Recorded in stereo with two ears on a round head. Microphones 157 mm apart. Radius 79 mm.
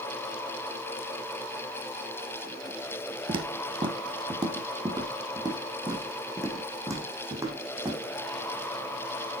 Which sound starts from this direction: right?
Footsteps, at 3.3 s.